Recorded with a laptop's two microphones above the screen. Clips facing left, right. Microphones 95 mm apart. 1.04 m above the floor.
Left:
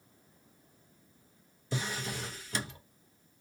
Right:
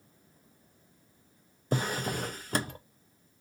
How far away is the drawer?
About 0.5 m.